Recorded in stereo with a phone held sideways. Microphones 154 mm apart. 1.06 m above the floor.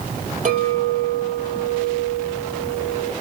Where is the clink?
55° right (ahead or behind), 2.5 m.